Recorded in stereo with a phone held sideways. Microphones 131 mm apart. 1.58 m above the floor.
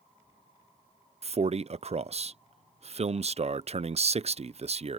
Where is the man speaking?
50° right (ahead or behind).